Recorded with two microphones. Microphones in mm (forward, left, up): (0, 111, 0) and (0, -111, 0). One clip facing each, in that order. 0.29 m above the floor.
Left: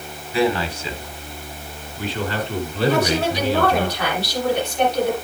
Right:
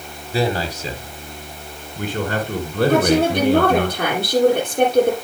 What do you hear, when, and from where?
0.3 s a man speaking: 40° right (ahead or behind), 1.9 m; by 3.9 s 65° right (ahead or behind), 4 m
2.9 s a woman speaking: 55° right (ahead or behind), 6.5 m